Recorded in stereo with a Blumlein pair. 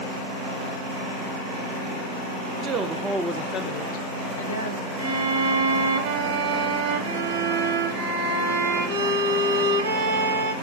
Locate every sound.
2.6 s a woman speaking: 25° right, 0.6 m; by 4.9 s 75° left, 1.0 m
5.0 s a violin: 65° right, 1.0 m